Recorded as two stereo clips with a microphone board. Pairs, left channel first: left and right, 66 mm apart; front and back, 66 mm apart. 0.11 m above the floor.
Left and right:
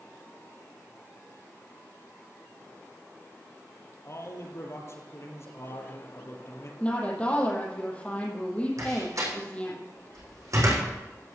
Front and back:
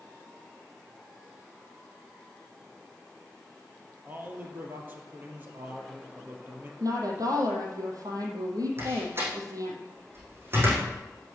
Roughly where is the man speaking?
Behind left.